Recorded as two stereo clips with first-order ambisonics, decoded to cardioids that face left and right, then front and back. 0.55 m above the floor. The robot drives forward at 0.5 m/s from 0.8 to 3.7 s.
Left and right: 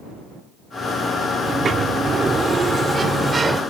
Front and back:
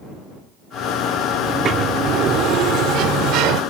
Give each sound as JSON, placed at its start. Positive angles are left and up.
{"t": 1.4, "sound": "a sliding door", "azimuth_deg": -135}